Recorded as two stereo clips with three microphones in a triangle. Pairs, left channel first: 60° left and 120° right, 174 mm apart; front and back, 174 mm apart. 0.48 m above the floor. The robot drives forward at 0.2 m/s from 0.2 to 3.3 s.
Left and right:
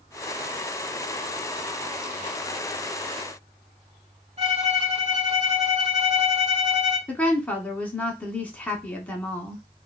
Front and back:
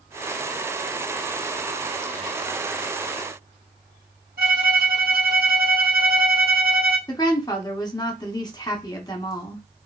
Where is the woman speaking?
10° right, 0.7 m.